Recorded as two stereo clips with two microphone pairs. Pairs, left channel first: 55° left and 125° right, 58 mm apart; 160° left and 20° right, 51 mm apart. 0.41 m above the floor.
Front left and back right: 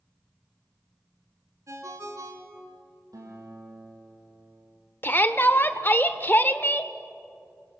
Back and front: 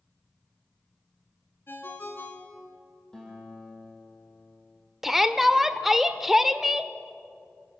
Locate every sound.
1.7 s a ringtone: 155° right, 2 m
3.1 s a guitar: 125° right, 5 m
5.0 s a shout: 60° left, 0.9 m